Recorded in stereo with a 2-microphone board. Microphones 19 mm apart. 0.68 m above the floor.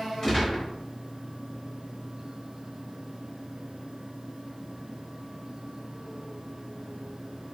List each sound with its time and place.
0.2 s a gunshot: 20° left (ahead or behind), 1.5 m